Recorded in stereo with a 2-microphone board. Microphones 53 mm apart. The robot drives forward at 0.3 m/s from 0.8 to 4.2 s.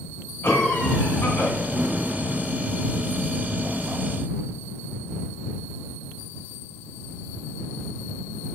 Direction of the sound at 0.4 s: 35° left (ahead or behind).